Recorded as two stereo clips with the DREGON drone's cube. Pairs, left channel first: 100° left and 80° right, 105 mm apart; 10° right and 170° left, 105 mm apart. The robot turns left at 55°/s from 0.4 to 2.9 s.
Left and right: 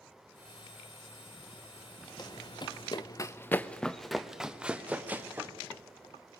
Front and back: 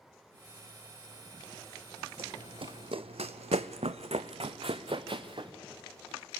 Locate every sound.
2.2 s running footsteps: 150° left, 0.7 m; by 5.5 s 150° right, 1.5 m